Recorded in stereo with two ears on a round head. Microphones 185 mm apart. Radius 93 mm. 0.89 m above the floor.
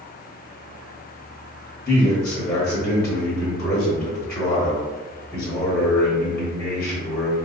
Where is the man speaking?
5° left (ahead or behind), 1.1 m.